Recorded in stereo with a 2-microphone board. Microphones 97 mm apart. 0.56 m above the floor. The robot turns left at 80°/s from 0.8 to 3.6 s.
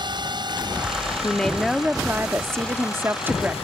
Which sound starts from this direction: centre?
A woman speaking, at 1.2 s.